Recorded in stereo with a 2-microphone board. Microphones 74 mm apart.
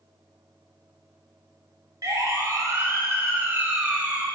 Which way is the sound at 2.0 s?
50° right (ahead or behind).